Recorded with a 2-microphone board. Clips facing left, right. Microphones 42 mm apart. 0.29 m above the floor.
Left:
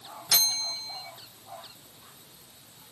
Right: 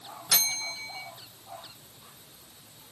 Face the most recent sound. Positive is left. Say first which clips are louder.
# left 2 dB
turn(degrees=-10)  # may be behind; listen again after turning